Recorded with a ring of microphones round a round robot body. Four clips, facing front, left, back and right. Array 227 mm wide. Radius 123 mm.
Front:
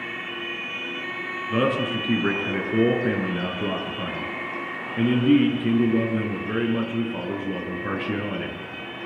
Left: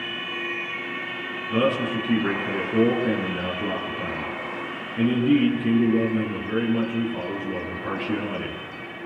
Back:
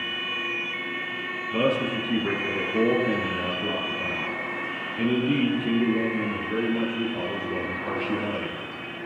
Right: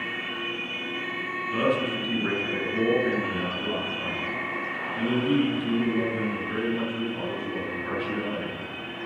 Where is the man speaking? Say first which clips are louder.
Left 3 dB, front 1 dB; 20° left, 9.5 m.